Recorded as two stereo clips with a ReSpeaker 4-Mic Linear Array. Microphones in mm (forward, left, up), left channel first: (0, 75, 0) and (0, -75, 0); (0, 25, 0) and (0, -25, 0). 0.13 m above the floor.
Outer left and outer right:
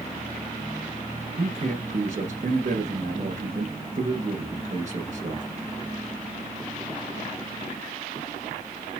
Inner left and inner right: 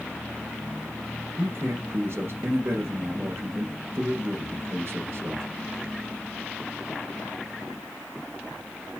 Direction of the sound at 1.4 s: 55° right (ahead or behind).